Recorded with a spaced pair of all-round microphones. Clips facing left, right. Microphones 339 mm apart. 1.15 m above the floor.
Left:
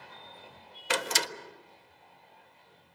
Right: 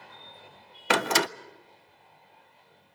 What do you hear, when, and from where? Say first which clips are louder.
0.9 s a door slam: right 7 dB; 70° right (ahead or behind), 0.6 m